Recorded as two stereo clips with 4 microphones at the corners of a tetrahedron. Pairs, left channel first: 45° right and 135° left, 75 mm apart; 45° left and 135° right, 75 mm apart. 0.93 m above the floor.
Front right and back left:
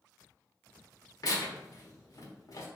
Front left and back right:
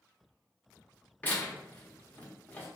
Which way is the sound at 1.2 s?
15° right.